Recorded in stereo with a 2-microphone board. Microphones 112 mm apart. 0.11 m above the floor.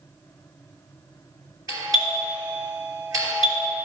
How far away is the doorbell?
About 2.5 m.